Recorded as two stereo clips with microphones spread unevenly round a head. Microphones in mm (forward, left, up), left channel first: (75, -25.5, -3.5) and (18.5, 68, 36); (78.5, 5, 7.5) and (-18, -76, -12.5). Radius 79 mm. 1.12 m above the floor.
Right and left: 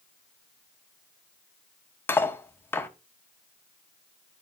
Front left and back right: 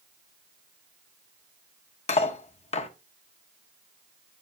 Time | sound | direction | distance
2.1 | cutlery clinking | 20° left | 1.0 m